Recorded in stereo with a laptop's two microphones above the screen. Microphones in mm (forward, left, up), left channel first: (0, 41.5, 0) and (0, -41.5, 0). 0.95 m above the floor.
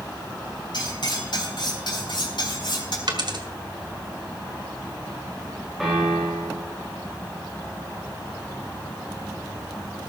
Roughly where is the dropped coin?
Right.